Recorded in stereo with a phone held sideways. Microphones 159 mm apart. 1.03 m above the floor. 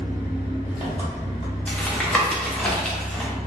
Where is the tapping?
5° left (ahead or behind), 0.6 m.